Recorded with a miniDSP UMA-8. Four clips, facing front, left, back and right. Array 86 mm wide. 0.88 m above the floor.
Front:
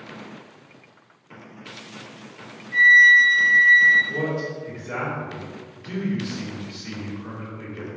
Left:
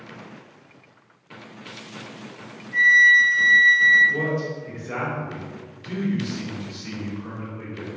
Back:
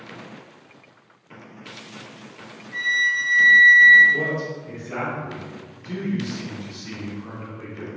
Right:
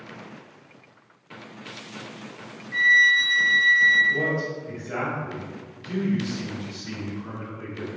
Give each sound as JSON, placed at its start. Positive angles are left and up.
{"t": 2.7, "sound": "a flute", "azimuth_deg": -60, "distance_m": 0.6}
{"t": 4.1, "sound": "a man speaking", "azimuth_deg": 45, "distance_m": 1.4}